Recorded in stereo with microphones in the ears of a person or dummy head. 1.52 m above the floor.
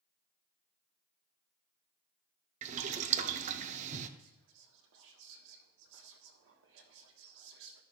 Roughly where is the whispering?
Right.